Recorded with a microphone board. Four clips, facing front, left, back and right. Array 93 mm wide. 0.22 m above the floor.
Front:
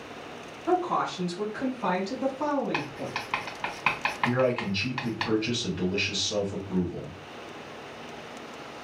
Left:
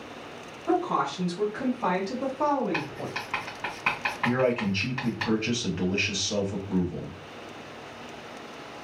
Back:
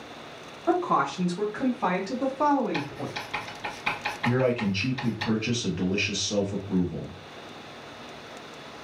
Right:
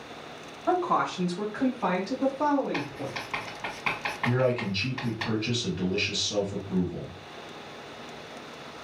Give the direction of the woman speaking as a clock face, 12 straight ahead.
4 o'clock.